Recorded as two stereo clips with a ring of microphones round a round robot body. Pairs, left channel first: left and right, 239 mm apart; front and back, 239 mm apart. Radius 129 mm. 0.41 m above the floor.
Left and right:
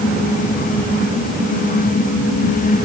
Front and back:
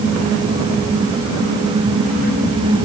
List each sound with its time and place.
Only background noise.